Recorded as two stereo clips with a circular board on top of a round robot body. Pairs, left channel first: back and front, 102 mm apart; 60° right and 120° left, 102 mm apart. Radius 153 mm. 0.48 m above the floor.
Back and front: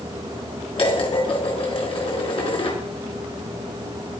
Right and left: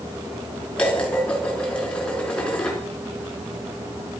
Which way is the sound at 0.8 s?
140° right.